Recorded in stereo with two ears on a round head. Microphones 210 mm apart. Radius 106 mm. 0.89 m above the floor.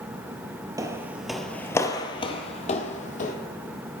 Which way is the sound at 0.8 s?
15° right (ahead or behind).